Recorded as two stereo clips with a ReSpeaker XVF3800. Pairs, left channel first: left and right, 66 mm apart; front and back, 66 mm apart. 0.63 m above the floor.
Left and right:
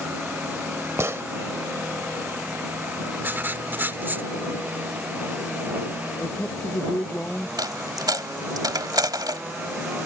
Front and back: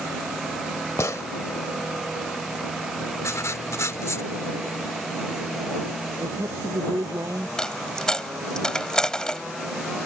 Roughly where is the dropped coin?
Right.